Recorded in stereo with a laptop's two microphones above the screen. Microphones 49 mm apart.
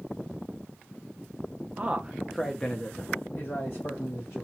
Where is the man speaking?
30° right (ahead or behind), 0.7 m; by 4.4 s 65° left (ahead or behind), 1.2 m.